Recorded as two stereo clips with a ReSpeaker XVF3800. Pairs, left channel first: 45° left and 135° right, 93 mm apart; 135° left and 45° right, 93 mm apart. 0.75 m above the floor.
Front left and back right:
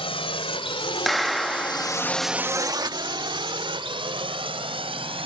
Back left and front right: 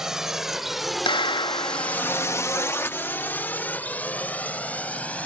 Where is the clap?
135° left.